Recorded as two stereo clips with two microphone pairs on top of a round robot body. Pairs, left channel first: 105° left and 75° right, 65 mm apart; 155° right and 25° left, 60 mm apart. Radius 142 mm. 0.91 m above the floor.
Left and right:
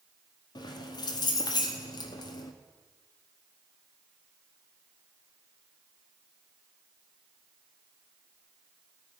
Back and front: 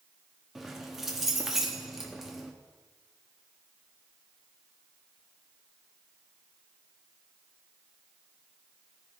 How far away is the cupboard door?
I don't hear a cupboard door.